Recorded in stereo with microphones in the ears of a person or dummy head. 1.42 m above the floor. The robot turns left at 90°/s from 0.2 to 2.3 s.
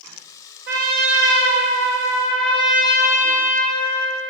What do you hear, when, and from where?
0.7 s a trumpet: 60° right, 3.5 m; by 4.2 s 150° left, 3.5 m